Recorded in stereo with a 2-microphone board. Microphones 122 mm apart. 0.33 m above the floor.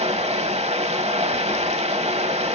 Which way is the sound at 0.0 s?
60° right (ahead or behind).